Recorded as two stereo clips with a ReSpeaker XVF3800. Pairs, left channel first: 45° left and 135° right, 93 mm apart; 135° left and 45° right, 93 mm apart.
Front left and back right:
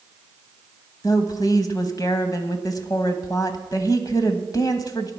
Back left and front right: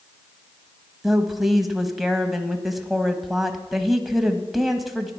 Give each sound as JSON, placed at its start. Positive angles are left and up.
{"t": 1.0, "sound": "a woman speaking", "azimuth_deg": 45, "distance_m": 1.2}